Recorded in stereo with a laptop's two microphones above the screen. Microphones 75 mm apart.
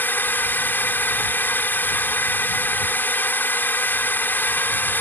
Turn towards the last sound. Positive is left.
turn(degrees=25)  # may be behind; listen again after turning